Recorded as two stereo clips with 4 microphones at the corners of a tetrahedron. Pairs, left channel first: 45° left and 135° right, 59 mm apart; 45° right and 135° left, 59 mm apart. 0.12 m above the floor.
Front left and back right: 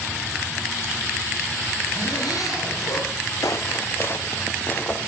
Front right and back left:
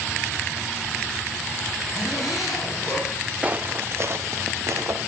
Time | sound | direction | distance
1.9 | a zipper | 50° left | 6.5 m
3.4 | footsteps | 70° left | 0.6 m